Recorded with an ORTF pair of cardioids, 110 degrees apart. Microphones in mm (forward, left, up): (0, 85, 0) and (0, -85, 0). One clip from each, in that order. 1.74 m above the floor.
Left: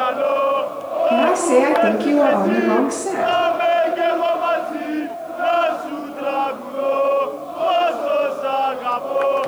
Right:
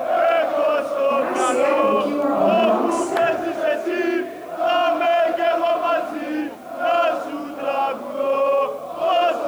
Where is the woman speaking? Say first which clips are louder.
Left 4 dB; 50° left, 3 m.